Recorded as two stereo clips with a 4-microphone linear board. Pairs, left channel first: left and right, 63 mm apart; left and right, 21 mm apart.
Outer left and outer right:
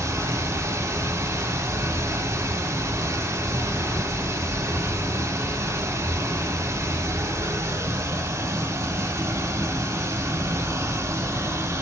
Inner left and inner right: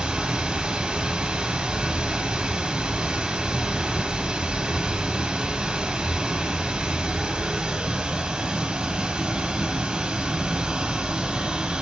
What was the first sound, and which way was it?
Running water, 55° right (ahead or behind).